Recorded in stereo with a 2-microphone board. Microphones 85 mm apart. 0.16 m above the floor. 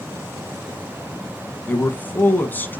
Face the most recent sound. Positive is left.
turn(degrees=20)  # may be behind; listen again after turning